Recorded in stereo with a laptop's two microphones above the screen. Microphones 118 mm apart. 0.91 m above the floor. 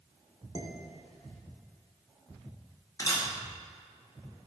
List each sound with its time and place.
0.6 s dishes clattering: 70° left (ahead or behind), 1.8 m
3.0 s a camera shutter: 30° left (ahead or behind), 1.8 m